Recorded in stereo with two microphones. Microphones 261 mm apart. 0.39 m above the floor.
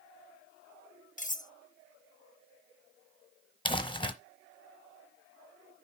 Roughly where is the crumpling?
Centre.